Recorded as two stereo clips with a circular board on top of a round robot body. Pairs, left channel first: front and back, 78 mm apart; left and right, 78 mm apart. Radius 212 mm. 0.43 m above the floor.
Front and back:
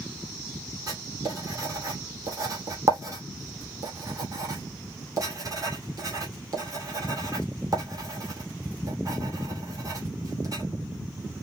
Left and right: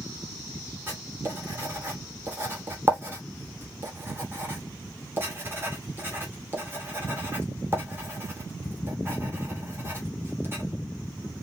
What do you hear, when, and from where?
0.9 s writing: 145° right, 2.5 m